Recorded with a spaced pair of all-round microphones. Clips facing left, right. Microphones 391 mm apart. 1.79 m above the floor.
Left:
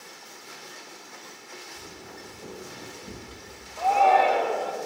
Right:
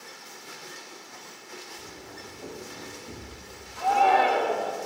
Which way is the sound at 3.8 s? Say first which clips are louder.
Left 2 dB; 25° right (ahead or behind).